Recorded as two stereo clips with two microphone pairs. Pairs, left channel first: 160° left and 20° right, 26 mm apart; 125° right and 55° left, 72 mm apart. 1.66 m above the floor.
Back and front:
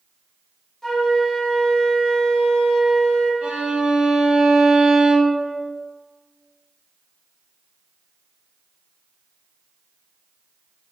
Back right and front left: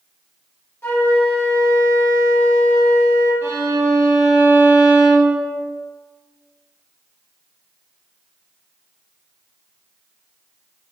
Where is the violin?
5° left, 1.2 m.